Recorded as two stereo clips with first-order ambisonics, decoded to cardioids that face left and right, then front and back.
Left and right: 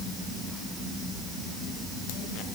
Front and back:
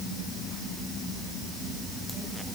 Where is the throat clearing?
No throat clearing in this recording.